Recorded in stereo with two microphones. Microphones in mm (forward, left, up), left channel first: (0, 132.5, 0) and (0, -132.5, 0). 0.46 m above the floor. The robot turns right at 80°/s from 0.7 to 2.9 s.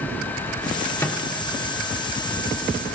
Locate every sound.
1.0 s a microwave: 10° left (ahead or behind), 0.8 m; by 1.2 s 5° left (ahead or behind), 0.8 m